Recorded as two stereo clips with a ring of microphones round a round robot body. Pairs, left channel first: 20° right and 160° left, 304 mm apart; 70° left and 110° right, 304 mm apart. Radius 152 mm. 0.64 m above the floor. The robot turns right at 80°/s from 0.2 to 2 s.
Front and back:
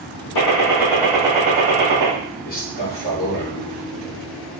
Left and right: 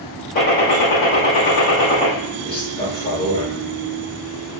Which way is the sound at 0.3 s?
5° left.